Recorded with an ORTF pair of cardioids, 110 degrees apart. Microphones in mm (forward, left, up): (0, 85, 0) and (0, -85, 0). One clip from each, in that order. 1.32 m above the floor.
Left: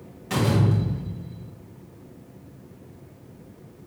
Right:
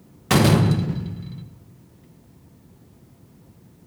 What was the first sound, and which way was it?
A door slam, 65° right.